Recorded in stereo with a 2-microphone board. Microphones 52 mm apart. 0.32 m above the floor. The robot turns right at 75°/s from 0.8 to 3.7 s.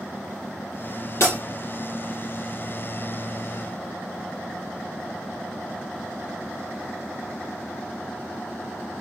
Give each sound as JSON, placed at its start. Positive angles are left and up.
{"t": 1.2, "sound": "breaking glass", "side_deg": 55, "distance_m": 4.5}